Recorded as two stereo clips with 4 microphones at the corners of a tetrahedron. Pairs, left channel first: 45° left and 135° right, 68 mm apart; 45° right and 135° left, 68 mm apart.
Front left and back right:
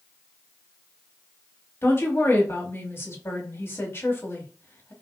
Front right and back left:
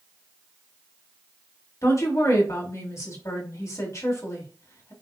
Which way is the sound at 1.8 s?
5° right.